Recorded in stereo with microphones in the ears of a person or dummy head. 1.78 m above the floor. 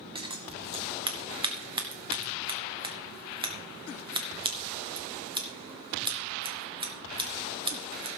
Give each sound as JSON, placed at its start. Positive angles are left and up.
{"t": 0.1, "sound": "scissors", "side_deg": -25, "distance_m": 2.0}